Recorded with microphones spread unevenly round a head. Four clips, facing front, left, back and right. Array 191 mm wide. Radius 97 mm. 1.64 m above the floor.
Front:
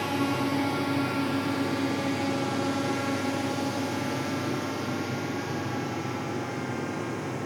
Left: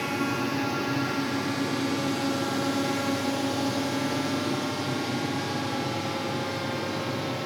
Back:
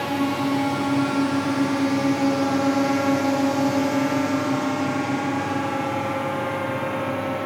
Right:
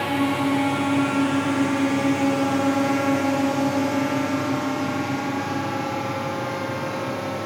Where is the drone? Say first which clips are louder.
Right 6 dB, back 4 dB; 110° right; by 7.5 s 165° right.